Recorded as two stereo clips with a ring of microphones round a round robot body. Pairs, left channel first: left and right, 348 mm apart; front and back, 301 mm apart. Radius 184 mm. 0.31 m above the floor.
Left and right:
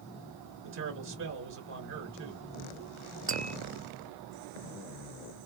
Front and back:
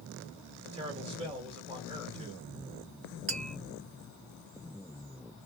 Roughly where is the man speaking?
Behind right.